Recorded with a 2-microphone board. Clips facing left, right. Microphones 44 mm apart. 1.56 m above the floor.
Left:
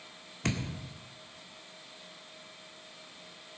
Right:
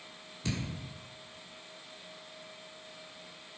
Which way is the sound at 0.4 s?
65° left (ahead or behind).